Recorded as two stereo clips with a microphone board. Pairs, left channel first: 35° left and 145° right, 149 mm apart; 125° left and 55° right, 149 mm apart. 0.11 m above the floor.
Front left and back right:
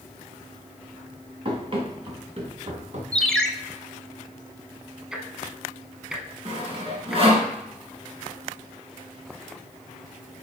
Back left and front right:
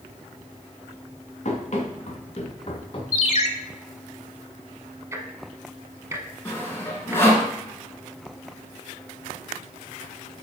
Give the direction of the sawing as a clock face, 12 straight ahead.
6 o'clock.